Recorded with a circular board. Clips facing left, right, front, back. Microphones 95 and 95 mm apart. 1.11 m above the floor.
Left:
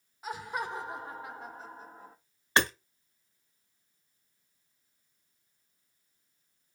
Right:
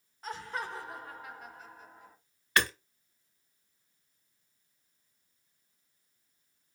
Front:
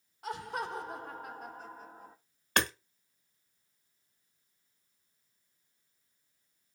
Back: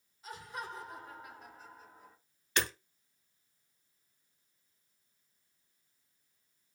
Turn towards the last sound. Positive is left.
turn(degrees=30)